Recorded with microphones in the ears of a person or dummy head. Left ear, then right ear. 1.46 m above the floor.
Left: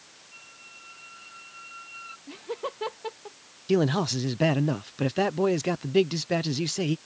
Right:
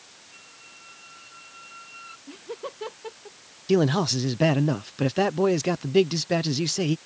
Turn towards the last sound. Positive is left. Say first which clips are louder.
# right 2 dB
turn(degrees=0)  # may be behind; listen again after turning